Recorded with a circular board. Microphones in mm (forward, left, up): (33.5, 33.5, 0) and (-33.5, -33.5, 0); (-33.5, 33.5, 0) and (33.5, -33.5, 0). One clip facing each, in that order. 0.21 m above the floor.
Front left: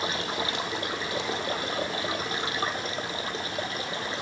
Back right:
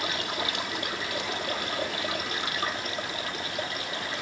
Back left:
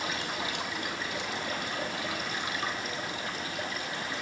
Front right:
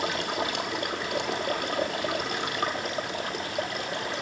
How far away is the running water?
About 1.2 m.